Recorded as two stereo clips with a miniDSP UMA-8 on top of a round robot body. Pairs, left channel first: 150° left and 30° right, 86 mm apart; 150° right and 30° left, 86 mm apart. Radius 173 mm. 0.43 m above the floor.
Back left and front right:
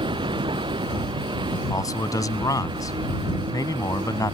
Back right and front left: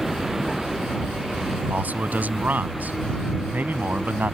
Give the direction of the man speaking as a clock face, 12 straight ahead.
9 o'clock.